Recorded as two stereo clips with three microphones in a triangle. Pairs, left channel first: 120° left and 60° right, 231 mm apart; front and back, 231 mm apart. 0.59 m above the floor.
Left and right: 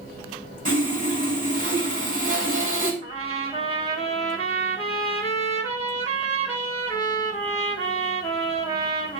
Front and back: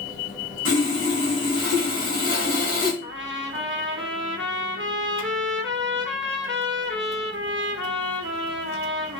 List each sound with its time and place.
0.7 s sawing: 5° right, 2.5 m
3.0 s a trumpet: straight behind, 1.0 m